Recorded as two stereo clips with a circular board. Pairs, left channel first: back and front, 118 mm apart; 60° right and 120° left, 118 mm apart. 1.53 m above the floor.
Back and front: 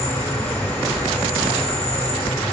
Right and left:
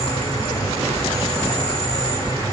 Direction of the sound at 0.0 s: 105° right.